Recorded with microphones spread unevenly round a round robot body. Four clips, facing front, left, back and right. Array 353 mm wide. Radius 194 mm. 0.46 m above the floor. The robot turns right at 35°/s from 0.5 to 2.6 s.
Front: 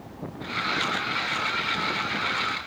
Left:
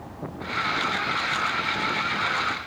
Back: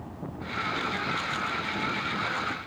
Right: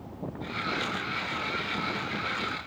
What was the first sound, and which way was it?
Only background noise.